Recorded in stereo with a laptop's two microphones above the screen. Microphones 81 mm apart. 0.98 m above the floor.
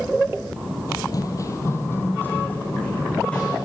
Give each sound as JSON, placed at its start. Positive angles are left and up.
{"t": 0.9, "sound": "running footsteps", "side_deg": 50, "distance_m": 1.4}